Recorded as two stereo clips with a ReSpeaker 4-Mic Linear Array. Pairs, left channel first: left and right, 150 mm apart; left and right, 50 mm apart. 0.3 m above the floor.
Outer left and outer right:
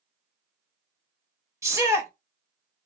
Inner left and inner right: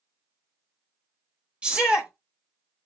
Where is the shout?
20° right (ahead or behind), 1.0 m.